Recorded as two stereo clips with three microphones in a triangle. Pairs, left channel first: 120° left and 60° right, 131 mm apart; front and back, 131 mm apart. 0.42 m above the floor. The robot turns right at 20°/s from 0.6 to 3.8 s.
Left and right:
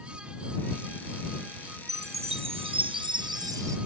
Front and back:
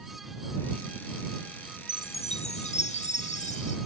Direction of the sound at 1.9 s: 35° right.